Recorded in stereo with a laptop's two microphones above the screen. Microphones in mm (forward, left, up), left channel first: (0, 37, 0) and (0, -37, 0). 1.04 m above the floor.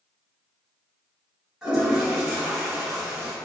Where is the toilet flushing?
10° right (ahead or behind), 1.7 m.